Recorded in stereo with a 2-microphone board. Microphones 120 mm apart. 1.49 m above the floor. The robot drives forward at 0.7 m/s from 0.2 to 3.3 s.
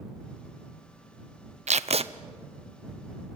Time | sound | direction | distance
1.7 | tape being pulled | 65° right (ahead or behind) | 0.5 m